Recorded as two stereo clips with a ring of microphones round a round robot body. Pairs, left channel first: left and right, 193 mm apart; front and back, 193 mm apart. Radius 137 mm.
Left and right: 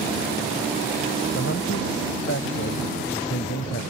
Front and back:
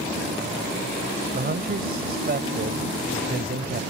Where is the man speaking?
145° left.